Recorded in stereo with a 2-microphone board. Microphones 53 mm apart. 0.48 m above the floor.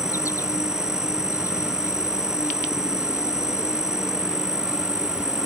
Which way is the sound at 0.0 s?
75° left (ahead or behind).